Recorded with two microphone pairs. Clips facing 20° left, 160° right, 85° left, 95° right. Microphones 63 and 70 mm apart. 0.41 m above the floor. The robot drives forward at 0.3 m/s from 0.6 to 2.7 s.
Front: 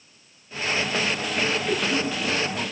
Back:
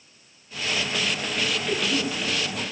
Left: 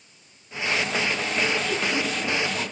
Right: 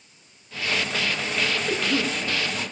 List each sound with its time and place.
1.7 s a cough: 45° right, 6.5 m